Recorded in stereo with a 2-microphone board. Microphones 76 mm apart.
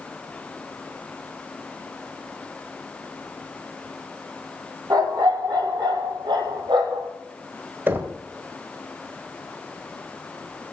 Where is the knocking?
30° right (ahead or behind), 1.6 m.